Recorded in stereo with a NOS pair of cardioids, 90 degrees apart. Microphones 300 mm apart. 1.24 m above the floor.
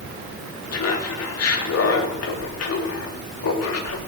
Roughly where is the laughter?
Ahead left.